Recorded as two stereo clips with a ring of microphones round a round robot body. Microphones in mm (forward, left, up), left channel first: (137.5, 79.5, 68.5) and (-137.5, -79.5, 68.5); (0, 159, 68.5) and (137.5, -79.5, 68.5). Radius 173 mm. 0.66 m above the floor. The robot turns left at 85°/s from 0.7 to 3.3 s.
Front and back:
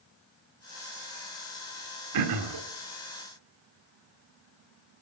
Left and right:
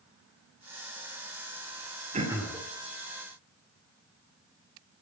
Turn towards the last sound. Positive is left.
turn(degrees=135)